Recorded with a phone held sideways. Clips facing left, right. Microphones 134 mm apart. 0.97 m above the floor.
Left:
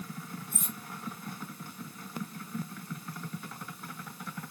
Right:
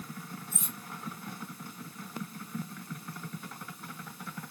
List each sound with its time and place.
0.5 s cutlery clinking: 55° left (ahead or behind), 1.7 m